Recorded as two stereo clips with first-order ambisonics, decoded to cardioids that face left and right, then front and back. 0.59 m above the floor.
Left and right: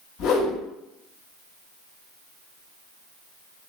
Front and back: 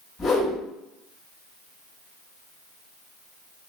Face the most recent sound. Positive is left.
turn(degrees=70)